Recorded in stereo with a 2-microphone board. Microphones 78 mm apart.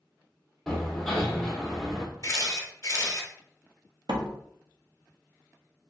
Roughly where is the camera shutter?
Left.